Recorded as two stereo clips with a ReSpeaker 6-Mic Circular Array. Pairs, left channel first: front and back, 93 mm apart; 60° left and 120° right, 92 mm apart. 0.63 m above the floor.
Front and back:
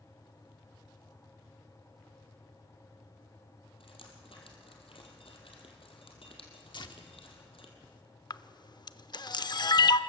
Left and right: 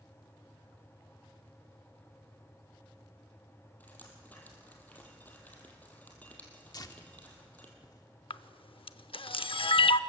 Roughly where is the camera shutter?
Ahead left.